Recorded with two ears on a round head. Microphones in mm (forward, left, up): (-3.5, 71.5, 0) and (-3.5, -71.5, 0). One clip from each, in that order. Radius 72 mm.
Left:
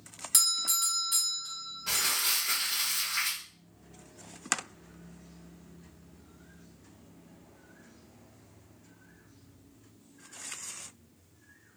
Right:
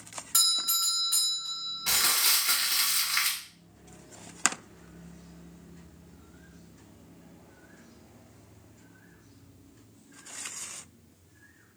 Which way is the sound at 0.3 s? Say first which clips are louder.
Right 2 dB; 35° left (ahead or behind).